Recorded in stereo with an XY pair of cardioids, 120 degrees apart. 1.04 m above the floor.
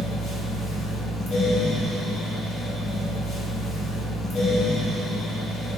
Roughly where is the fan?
Ahead left.